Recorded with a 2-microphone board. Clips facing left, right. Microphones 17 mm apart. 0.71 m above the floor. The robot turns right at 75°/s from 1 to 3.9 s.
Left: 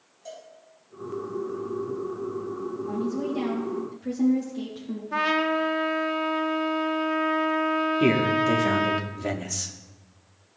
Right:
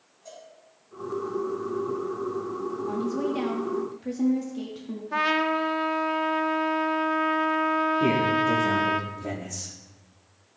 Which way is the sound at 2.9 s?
95° right.